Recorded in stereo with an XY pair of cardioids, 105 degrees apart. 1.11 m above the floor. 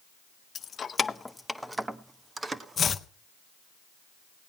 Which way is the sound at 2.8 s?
45° left.